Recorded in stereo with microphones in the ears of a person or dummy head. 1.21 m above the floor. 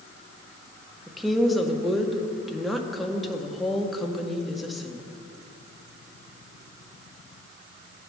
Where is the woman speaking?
Centre (ahead or behind), 0.8 m.